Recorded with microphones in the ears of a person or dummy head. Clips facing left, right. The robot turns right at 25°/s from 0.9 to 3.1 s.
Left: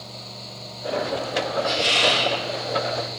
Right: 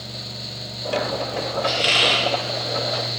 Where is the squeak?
30° right (ahead or behind), 0.5 m; by 2.3 s 40° right (ahead or behind), 0.5 m.